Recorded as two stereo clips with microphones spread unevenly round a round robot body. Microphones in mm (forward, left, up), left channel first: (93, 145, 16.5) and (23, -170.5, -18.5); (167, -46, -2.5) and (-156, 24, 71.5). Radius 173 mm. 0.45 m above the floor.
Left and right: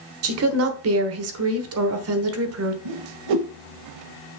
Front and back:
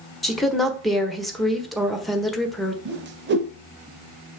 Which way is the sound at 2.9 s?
130° right.